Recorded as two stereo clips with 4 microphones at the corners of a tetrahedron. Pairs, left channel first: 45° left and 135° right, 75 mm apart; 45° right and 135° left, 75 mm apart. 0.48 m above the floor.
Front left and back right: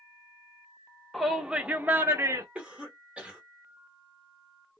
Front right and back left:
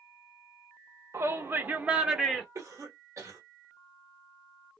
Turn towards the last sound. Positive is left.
turn(degrees=155)